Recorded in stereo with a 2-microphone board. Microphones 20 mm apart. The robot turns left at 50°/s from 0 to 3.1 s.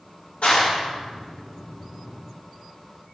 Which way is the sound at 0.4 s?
70° left (ahead or behind).